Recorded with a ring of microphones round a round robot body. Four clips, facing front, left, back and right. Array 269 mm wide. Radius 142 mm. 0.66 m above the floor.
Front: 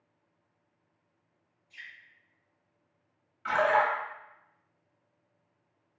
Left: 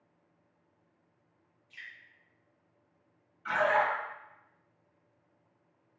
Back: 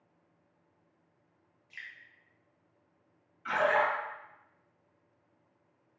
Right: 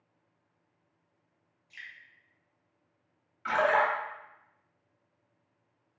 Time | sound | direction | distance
1.7 | dripping | 165° right | 0.7 m
3.5 | a splash | 50° right | 0.9 m